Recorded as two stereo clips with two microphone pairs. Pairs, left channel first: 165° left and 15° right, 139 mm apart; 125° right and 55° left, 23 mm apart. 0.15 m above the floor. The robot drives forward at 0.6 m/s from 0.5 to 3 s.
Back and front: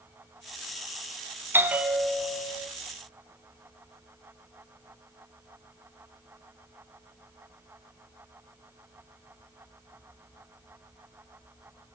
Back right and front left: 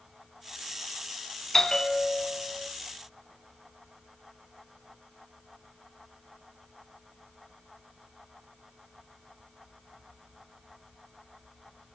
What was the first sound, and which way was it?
A bell, 70° right.